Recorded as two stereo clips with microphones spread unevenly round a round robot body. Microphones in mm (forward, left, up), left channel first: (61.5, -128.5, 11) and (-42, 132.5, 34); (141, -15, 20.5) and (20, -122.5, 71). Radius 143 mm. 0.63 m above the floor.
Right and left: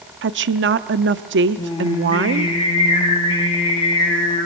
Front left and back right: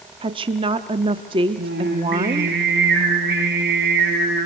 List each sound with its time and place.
0.2 s a woman speaking: 155° left, 0.8 m
1.6 s singing: 140° right, 6.5 m